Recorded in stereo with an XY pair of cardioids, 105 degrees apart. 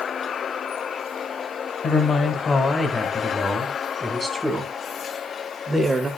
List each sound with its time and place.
1.8 s a man speaking: 50° left, 2 m; by 6.1 s 25° right, 3 m